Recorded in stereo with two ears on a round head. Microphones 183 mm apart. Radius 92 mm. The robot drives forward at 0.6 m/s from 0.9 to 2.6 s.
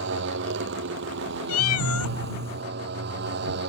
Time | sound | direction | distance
0.0 | a motorcycle | 65° right (ahead or behind) | ?
1.5 | a cat meowing | 85° left | ?